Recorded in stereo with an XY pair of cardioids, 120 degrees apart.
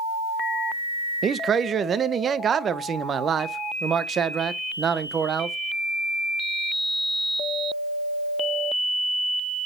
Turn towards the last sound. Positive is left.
turn(degrees=-40)